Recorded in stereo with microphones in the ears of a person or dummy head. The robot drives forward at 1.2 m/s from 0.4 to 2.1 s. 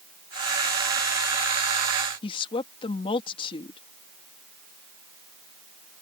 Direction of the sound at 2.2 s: 30° left (ahead or behind).